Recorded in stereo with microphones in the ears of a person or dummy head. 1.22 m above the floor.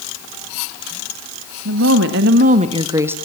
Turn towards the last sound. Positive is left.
turn(degrees=-10)  # may be behind; listen again after turning